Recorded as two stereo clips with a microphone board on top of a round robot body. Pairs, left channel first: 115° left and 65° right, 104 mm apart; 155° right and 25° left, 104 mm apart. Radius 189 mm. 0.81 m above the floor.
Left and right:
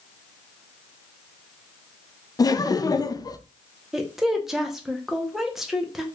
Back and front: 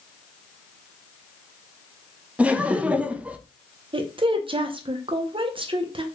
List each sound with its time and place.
2.4 s laughter: 95° left, 0.6 m
3.9 s a woman speaking: 20° left, 0.7 m